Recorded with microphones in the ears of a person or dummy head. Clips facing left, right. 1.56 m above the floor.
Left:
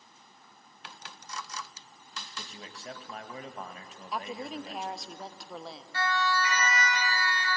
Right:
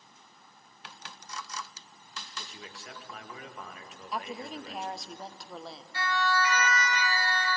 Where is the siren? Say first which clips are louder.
Even; 60° left (ahead or behind), 9.5 m; by 7.5 s 65° left (ahead or behind), 9.5 m.